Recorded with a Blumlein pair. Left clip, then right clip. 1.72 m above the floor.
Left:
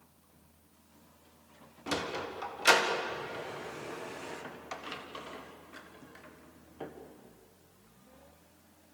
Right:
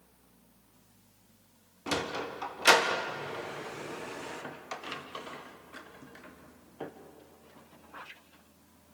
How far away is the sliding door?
About 1.6 m.